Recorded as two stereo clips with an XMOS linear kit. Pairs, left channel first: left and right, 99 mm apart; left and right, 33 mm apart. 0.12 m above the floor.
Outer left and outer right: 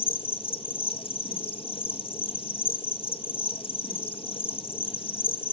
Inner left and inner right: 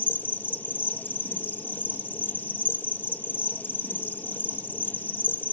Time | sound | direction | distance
0.0 | an insect | 60° left (ahead or behind) | 1.1 m